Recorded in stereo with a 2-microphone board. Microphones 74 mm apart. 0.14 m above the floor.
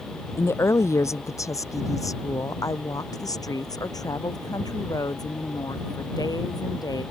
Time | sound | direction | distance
0.4 | a woman speaking | 35° left (ahead or behind) | ?